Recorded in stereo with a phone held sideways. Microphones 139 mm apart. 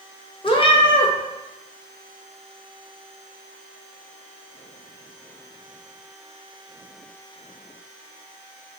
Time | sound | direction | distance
0.4 | a cat meowing | 40° left (ahead or behind) | 0.5 m